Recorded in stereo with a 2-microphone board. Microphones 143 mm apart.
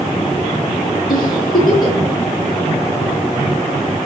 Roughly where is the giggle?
Left.